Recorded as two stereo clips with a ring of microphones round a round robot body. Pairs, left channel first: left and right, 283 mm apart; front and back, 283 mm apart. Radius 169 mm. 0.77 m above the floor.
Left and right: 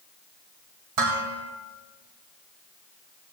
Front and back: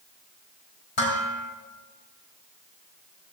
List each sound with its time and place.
1.0 s dishes clattering: 55° right, 3.5 m